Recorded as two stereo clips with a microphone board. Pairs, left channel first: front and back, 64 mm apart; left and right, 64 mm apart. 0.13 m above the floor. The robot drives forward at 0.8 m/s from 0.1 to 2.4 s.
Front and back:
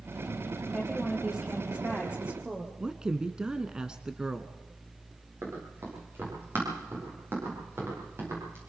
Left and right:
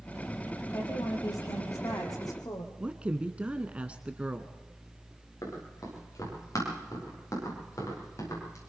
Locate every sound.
0.7 s a woman speaking: 95° left, 5 m; by 2.7 s 110° left, 5 m
2.8 s a woman speaking: 125° right, 1.1 m
5.4 s running footsteps: 125° left, 9.5 m